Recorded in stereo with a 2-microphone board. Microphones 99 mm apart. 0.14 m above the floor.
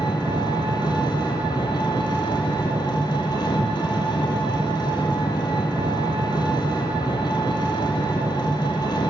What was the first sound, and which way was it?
An engine running, 45° left (ahead or behind).